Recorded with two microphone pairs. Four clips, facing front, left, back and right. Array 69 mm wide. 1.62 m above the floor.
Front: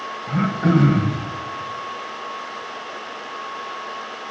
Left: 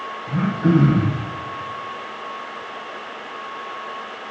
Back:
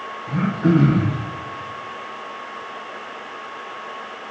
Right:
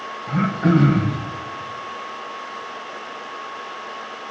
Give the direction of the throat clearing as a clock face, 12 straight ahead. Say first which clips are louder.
Even, back 1 dB; 2 o'clock.